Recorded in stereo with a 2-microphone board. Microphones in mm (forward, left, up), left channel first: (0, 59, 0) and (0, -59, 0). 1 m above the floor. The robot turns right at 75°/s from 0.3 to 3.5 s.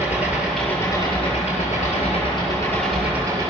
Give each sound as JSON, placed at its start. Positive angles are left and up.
{"t": 0.0, "sound": "an engine running", "azimuth_deg": -20, "distance_m": 8.0}